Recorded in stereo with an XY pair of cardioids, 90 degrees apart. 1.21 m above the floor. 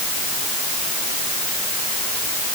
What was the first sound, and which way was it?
Only background noise.